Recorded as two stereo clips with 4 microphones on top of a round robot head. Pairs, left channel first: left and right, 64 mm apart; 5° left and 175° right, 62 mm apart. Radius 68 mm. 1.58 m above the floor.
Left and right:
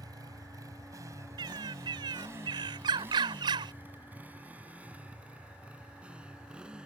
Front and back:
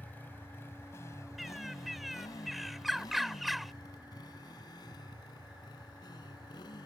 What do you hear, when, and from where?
0.0 s a motorcycle: 65° right; by 6.8 s 15° right
1.4 s a bird: 85° right